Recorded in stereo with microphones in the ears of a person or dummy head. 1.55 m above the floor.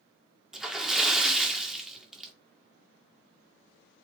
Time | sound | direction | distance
0.5 | a splash | centre (ahead or behind) | 1.8 m